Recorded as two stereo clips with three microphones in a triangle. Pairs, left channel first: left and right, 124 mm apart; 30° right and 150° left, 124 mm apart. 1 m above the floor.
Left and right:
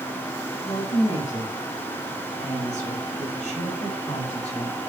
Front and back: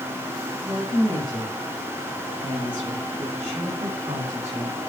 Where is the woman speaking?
95° left, 6.5 m; by 4.8 s 120° left, 4 m.